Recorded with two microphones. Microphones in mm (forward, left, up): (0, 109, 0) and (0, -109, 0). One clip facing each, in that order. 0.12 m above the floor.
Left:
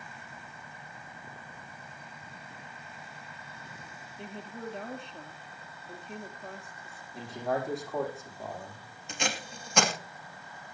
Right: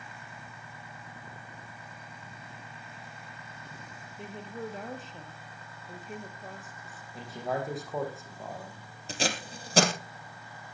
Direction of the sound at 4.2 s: Centre (ahead or behind).